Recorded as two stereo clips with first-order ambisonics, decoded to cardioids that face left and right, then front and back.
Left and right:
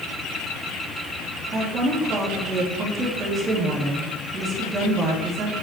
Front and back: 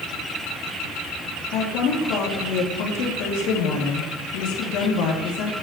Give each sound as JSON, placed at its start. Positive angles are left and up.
{"t": 1.5, "sound": "a woman speaking", "azimuth_deg": -20, "distance_m": 3.0}